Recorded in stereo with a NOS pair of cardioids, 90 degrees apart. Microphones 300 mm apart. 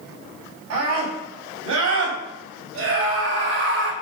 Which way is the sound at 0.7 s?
70° right.